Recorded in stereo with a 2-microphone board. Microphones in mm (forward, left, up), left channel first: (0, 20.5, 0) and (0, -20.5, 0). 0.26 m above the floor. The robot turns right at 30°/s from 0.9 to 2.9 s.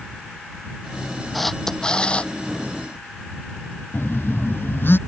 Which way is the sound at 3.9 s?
60° left (ahead or behind).